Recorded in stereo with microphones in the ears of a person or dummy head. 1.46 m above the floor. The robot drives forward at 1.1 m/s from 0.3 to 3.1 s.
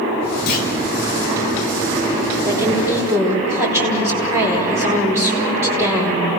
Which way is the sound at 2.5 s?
15° right (ahead or behind).